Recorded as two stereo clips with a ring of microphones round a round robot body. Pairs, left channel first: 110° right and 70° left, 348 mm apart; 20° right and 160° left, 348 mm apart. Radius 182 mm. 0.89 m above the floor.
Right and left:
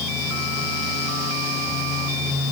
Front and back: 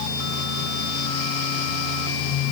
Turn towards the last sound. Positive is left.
No sound to turn to.